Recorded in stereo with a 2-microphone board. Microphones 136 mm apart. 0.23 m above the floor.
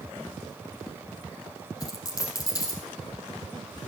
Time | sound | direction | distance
1.8 | a dropped coin | 25° left (ahead or behind) | 3 m